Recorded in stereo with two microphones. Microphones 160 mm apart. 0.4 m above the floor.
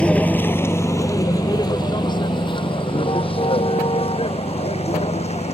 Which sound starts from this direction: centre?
A vehicle, at 0.0 s.